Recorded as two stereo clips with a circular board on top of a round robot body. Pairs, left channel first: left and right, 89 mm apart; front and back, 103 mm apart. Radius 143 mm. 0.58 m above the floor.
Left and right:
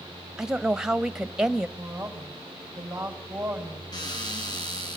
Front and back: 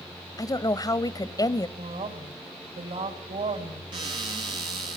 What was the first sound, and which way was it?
A woman speaking, 10° right.